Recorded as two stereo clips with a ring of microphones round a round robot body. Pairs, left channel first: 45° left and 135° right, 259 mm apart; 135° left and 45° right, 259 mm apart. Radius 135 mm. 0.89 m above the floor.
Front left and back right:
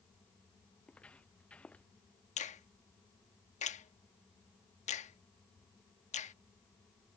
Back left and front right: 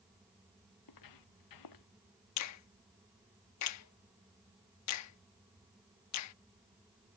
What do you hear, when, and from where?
0.8 s footsteps: 130° left
2.4 s a finger snap: 110° left